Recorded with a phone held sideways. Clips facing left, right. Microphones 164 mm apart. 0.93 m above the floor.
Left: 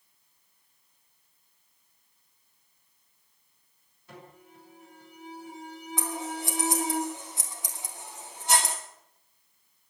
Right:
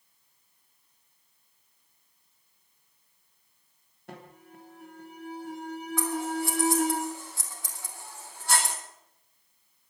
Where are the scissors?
20° left (ahead or behind), 2.5 m.